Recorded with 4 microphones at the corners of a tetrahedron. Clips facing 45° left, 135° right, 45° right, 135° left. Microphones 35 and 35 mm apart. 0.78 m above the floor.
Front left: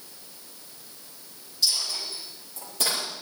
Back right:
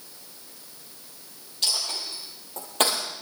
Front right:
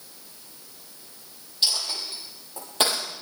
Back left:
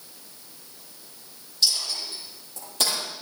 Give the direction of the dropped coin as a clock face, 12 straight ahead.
3 o'clock.